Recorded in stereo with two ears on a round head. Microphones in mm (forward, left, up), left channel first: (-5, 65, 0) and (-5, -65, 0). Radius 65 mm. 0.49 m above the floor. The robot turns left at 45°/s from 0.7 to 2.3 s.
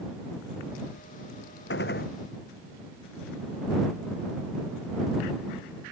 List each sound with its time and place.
1.7 s a gunshot: 85° left; by 2.1 s 70° left (ahead or behind)